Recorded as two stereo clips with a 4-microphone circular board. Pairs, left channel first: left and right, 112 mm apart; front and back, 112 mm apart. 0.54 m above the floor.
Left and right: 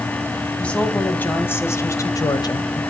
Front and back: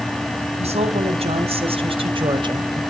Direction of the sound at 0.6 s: 170° left.